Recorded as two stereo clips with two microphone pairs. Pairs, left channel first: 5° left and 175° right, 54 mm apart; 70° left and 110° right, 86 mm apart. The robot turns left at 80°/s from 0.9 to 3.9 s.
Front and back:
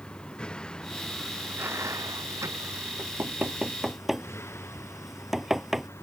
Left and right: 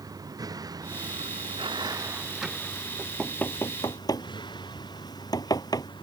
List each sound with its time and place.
0.0 s a vehicle: 70° right; by 6.0 s 40° left
3.0 s knocking: 170° left; by 5.9 s 100° left